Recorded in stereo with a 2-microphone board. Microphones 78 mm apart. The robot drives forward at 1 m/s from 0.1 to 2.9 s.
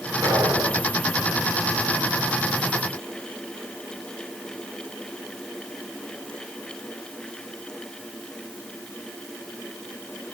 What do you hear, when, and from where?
0.2 s an explosion: 55° right (ahead or behind), 8.5 m; by 0.9 s 60° right (ahead or behind), 8 m